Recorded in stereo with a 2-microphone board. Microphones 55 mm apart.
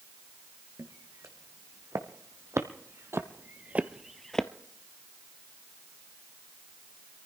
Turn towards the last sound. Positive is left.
turn(degrees=15)  # may be behind; listen again after turning